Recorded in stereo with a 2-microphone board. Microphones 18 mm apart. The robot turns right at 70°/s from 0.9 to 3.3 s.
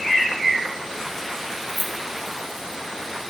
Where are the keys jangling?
25° left (ahead or behind); by 2.0 s 5° left (ahead or behind).